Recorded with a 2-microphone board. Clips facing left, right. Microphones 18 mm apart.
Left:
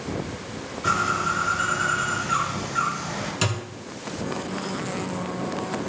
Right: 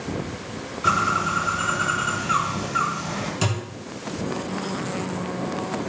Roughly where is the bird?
Right.